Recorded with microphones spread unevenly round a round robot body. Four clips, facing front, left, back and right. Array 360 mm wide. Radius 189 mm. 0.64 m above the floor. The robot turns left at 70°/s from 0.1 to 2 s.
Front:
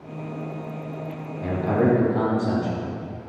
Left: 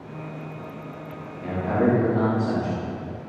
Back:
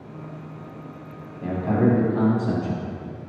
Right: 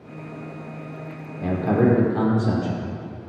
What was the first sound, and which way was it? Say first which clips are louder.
A man speaking: right 3 dB, even; 70° right.